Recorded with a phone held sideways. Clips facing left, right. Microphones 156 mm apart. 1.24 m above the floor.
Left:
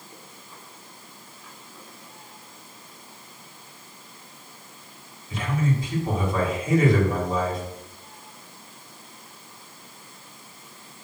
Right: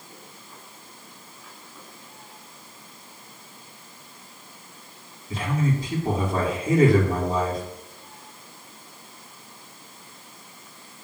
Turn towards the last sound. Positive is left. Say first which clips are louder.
# even
turn(degrees=-50)  # may be behind; listen again after turning